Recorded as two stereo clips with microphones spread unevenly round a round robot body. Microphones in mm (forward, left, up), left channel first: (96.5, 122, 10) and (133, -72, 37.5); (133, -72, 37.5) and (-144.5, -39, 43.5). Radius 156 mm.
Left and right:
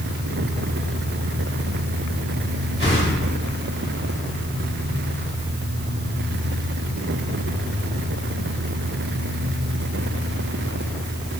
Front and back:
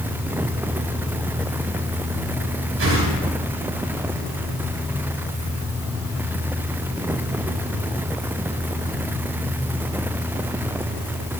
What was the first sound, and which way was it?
A whoosh, 145° right.